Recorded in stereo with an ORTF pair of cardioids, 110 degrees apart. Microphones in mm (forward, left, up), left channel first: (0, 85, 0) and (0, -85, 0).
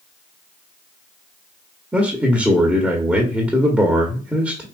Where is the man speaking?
5° right, 1.1 m.